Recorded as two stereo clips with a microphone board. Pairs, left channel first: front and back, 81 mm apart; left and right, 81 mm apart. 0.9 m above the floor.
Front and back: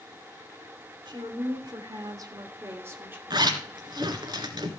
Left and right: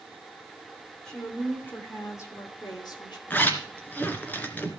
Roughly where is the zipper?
Behind left.